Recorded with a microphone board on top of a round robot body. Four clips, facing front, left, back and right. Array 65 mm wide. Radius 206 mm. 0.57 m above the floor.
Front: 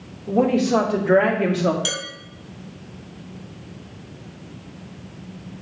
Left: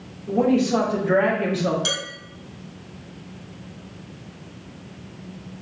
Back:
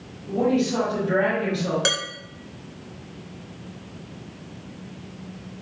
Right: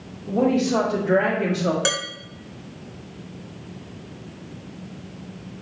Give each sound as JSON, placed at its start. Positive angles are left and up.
{"t": 0.3, "sound": "a woman speaking", "azimuth_deg": -5, "distance_m": 3.0}
{"t": 1.9, "sound": "dishes clattering", "azimuth_deg": -140, "distance_m": 2.0}